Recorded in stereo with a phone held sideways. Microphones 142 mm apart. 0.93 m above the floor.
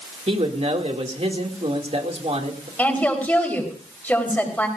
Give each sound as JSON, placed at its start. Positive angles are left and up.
{"t": 0.3, "sound": "a man speaking", "side_deg": -45, "distance_m": 2.5}
{"t": 2.8, "sound": "a woman speaking", "side_deg": 10, "distance_m": 4.0}